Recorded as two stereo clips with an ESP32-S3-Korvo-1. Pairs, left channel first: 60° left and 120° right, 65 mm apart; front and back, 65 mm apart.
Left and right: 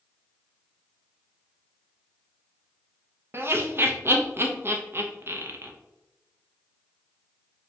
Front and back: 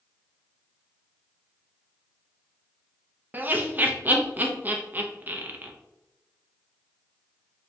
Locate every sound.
3.3 s laughter: 135° right, 0.5 m